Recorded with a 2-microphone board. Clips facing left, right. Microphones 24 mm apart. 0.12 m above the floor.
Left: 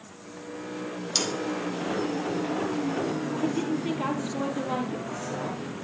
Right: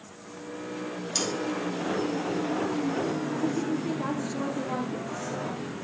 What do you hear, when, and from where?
1.1 s sawing: 35° left (ahead or behind), 3 m
3.3 s a woman speaking: 65° left (ahead or behind), 4 m